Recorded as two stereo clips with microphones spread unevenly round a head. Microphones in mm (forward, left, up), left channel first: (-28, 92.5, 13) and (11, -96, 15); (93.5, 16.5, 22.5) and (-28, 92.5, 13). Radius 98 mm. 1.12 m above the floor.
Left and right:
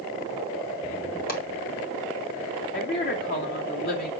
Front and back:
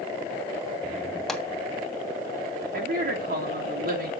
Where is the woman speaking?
145° left, 2.5 m.